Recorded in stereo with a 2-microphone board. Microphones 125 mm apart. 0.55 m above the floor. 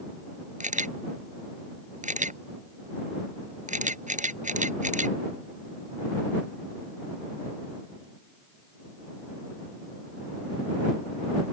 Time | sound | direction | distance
0.6 | a camera shutter | 85° right | ?